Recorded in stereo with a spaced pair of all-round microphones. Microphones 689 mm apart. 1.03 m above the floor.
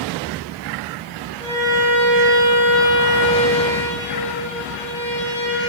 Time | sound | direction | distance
1.4 | a violin | 10° left (ahead or behind) | 4 m